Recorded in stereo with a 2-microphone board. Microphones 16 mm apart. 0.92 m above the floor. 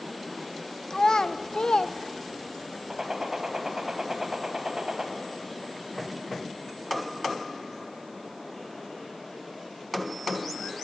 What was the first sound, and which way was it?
A child speaking, 50° left (ahead or behind).